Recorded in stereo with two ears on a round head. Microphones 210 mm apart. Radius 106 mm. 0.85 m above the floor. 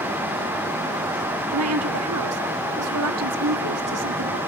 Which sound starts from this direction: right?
A woman speaking, at 1.5 s.